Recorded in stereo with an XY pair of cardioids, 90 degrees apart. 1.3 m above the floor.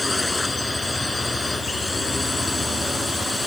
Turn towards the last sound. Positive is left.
turn(degrees=15)